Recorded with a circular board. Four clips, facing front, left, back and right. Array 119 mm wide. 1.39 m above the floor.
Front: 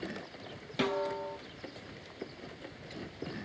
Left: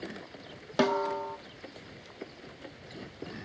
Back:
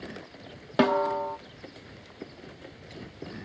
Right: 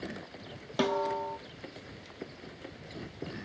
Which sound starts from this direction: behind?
A snare drum, at 0.8 s.